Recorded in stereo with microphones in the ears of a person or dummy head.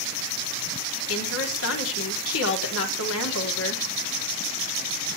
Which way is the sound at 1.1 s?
75° left (ahead or behind).